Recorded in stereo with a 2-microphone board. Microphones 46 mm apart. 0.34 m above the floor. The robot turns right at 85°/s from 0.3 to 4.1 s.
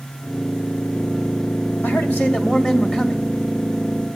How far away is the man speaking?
About 1.8 m.